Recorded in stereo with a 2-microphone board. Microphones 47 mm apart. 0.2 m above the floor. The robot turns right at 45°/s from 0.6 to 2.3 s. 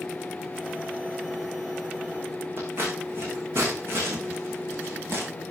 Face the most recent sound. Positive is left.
turn(degrees=-55)  # may be behind; listen again after turning